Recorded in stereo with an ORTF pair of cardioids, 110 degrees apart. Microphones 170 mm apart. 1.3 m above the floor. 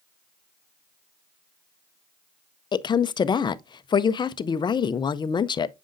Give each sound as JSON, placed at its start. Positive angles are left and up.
{"t": 2.7, "sound": "a woman speaking", "azimuth_deg": 25, "distance_m": 0.5}